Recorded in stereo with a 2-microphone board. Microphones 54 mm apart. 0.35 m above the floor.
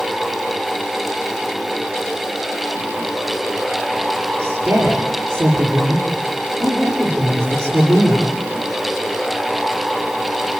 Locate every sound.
4.4 s a woman speaking: 30° right (ahead or behind), 7.5 m